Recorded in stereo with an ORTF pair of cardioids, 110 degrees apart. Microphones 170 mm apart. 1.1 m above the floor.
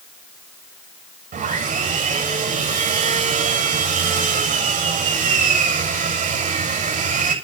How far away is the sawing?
About 6.5 m.